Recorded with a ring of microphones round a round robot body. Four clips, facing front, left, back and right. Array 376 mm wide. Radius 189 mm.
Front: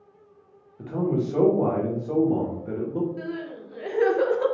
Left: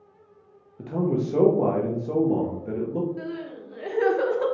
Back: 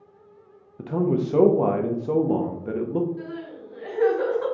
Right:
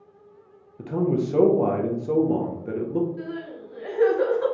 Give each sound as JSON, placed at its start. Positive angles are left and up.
{"t": 0.8, "sound": "a man speaking", "azimuth_deg": -170, "distance_m": 0.8}
{"t": 3.2, "sound": "crying", "azimuth_deg": 45, "distance_m": 1.1}